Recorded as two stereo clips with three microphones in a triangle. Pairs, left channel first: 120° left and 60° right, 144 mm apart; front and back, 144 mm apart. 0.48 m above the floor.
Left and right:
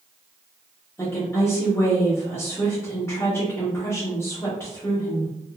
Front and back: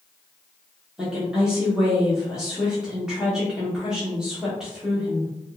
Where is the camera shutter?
No camera shutter in this recording.